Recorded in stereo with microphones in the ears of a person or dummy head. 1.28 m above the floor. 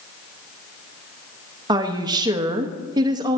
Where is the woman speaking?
25° right (ahead or behind), 0.6 m.